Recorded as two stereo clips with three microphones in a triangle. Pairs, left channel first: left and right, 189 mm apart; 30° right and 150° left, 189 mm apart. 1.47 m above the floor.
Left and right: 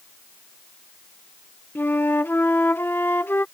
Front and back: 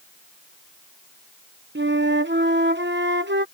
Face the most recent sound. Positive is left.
turn(degrees=170)